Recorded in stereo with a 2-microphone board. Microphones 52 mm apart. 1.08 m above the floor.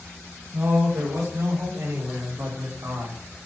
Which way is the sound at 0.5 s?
85° right.